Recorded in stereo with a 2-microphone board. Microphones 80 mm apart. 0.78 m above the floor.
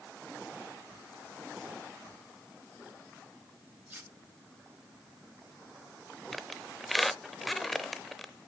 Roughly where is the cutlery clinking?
Right.